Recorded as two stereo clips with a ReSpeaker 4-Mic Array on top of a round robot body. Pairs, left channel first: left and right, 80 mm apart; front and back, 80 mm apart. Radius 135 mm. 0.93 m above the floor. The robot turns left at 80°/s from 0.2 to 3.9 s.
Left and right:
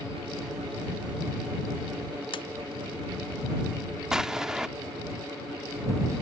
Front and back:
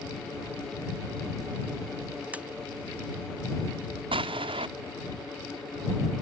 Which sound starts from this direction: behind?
An explosion, at 4.1 s.